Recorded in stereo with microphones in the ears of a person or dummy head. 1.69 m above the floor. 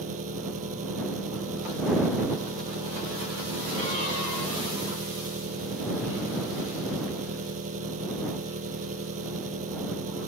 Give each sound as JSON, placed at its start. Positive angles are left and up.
{"t": 0.0, "sound": "an engine running", "side_deg": -40}